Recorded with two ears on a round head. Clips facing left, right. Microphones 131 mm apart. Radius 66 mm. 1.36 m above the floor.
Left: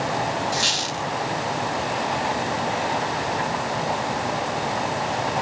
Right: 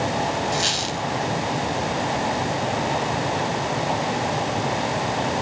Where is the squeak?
Centre (ahead or behind), 1.8 m.